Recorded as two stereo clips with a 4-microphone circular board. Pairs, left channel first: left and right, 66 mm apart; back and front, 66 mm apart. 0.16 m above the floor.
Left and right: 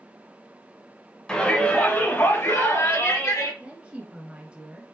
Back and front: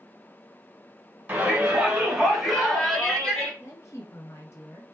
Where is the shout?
30° left, 1.8 m; by 3.5 s 95° left, 3 m.